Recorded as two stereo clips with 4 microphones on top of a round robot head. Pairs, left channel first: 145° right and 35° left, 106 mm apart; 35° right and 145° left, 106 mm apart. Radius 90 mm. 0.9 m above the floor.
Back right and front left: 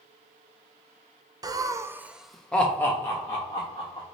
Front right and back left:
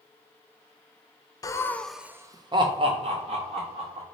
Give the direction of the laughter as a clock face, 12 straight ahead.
12 o'clock.